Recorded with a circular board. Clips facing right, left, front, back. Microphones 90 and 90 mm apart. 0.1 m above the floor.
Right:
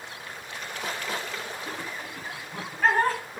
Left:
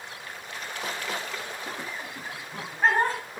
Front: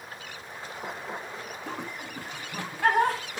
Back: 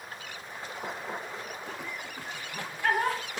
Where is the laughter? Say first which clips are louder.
Even, front 2 dB; 20° left, 10 m.